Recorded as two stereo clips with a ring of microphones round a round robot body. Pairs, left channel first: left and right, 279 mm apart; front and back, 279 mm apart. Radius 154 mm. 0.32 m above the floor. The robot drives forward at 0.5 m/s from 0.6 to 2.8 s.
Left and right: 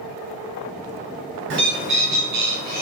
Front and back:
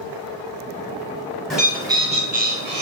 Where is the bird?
90° right, 0.8 m; by 2.8 s 140° right, 1.0 m.